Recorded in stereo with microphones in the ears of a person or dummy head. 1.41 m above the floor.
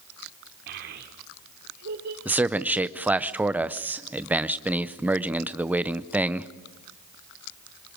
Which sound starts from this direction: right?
A child speaking, at 0.7 s.